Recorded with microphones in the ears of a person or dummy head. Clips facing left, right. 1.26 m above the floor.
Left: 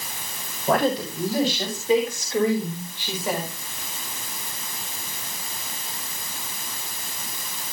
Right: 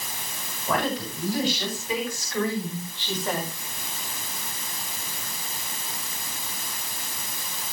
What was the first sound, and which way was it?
A woman speaking, 40° left (ahead or behind).